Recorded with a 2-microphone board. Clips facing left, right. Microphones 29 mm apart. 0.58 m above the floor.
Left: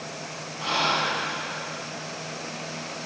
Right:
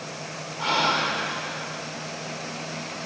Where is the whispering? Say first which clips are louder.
Right 1 dB; 65° right (ahead or behind), 4.5 m.